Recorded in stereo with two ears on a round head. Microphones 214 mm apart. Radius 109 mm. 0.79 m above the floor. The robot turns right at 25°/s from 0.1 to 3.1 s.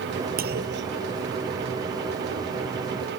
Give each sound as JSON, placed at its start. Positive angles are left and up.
{"t": 0.4, "sound": "a clunk", "side_deg": -45}